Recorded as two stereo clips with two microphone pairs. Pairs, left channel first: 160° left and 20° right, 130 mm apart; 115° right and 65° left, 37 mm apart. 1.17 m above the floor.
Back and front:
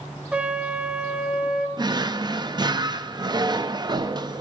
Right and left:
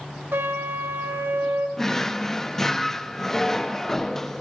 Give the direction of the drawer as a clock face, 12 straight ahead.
1 o'clock.